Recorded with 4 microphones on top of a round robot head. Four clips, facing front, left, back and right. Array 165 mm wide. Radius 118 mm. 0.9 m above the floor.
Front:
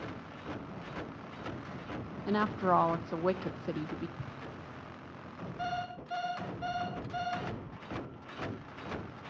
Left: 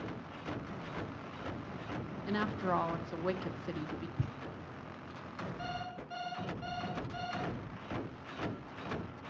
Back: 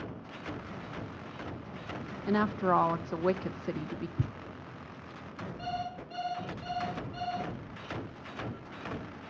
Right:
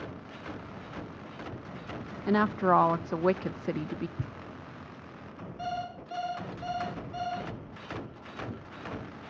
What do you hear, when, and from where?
2.3 s a woman speaking: 85° right, 0.7 m
4.2 s a thud: 165° left, 1.6 m
5.6 s an alarm clock: 10° right, 9 m